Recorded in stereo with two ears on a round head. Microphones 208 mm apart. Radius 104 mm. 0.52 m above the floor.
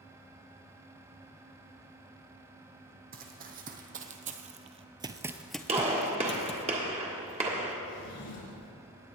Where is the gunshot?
30° right (ahead or behind), 1.6 m.